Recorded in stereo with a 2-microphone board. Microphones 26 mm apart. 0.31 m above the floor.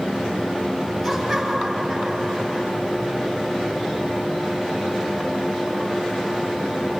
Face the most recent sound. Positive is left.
turn(degrees=5)  # may be behind; listen again after turning